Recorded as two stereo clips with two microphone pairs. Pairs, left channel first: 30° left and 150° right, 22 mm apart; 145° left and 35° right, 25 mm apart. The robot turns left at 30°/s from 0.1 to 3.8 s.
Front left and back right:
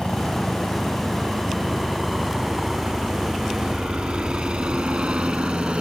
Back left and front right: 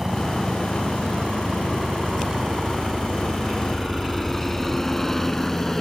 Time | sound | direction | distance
0.0 | a helicopter | 30° left | ?